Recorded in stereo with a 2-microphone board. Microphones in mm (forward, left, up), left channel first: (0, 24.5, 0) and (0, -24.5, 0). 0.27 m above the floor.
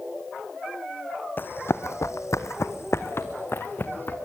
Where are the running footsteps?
40° left (ahead or behind), 1.0 m; by 4.2 s 45° left (ahead or behind), 2 m.